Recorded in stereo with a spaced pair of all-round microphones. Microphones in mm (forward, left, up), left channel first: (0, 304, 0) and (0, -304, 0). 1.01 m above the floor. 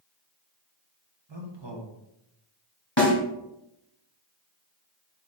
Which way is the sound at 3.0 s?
30° left (ahead or behind).